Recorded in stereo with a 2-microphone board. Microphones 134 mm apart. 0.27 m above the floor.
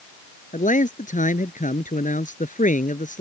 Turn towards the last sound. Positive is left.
turn(degrees=75)  # may be behind; listen again after turning